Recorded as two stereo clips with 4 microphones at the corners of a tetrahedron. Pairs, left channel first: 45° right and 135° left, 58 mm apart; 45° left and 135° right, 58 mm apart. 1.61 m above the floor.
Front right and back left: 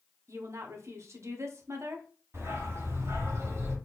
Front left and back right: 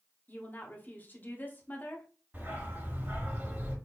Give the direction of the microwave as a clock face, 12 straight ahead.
I don't hear a microwave.